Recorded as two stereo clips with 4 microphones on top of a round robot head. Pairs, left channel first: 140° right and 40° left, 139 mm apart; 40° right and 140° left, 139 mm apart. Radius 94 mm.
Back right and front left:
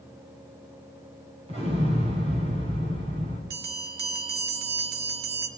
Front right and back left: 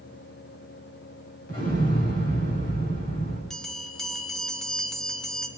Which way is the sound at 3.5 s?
45° left.